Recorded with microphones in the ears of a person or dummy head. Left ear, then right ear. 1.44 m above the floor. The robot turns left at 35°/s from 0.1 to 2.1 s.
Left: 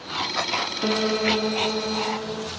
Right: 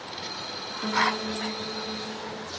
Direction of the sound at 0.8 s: 160° left.